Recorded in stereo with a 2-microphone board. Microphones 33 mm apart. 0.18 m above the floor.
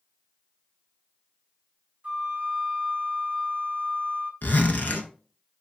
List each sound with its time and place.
2.0 s a flute: 50° right (ahead or behind), 0.7 m
4.4 s a zipper: 70° left (ahead or behind), 0.5 m